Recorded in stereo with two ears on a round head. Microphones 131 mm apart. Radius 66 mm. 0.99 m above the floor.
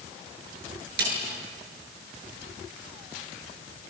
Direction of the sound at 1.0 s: 80° right.